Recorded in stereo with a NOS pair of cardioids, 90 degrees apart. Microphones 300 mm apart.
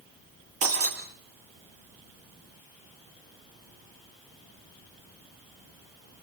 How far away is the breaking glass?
About 7 m.